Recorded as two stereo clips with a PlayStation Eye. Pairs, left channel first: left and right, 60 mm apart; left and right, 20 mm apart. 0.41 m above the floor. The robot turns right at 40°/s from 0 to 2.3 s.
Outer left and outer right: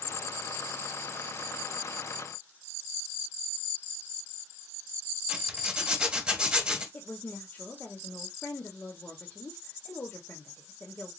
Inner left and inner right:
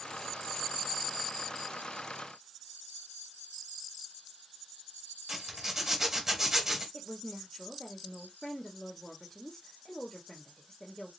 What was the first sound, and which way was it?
A zipper, 15° right (ahead or behind).